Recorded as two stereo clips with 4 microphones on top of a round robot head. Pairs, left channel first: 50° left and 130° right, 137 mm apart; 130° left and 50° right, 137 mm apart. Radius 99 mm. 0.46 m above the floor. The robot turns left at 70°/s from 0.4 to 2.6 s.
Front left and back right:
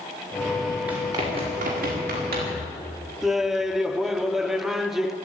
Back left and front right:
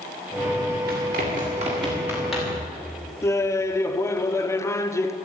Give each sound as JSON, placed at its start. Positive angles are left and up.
{"t": 0.9, "sound": "running footsteps", "azimuth_deg": -50, "distance_m": 8.5}
{"t": 3.2, "sound": "laughter", "azimuth_deg": 145, "distance_m": 1.0}